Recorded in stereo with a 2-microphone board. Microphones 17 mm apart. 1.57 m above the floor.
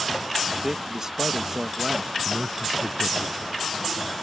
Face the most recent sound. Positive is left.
turn(degrees=-15)  # may be behind; listen again after turning